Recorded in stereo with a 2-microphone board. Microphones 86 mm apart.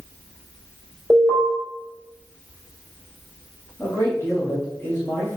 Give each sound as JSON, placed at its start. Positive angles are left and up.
{"t": 1.1, "sound": "an alarm", "side_deg": -10, "distance_m": 2.5}
{"t": 3.8, "sound": "a man speaking", "side_deg": 25, "distance_m": 2.5}